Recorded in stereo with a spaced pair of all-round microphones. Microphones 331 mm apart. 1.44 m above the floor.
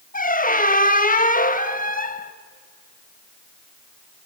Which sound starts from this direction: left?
A squeak, at 0.1 s.